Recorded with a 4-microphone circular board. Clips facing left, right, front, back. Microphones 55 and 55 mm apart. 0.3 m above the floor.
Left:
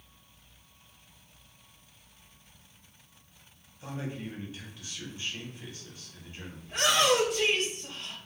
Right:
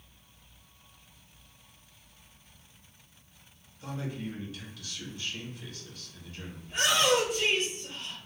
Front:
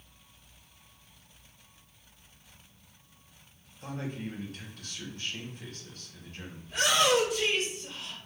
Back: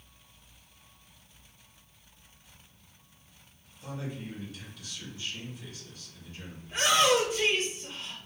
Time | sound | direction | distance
3.8 | a man speaking | 30° left | 1.7 m
6.6 | a shout | 120° left | 2.5 m